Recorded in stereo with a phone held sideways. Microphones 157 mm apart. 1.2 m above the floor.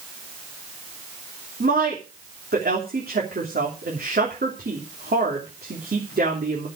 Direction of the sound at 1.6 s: 85° right.